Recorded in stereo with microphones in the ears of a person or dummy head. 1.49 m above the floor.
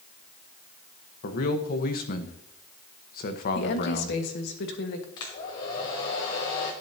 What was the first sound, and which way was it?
A man speaking, 50° left (ahead or behind).